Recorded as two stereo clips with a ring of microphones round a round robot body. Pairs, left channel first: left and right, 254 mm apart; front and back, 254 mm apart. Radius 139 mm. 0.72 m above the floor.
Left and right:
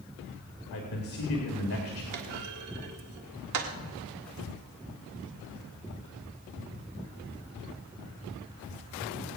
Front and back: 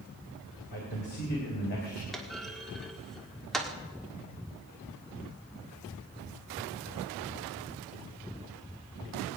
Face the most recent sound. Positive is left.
turn(degrees=-90)